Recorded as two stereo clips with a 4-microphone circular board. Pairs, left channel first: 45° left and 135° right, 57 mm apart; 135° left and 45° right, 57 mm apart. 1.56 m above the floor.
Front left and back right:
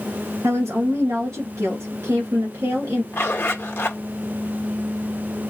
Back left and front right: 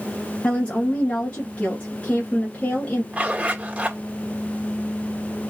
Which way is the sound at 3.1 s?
20° left.